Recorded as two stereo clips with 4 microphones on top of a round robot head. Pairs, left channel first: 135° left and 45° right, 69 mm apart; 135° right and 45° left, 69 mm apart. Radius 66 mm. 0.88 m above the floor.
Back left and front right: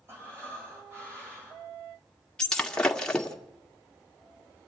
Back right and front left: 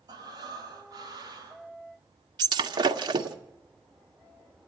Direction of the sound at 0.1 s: 10° left.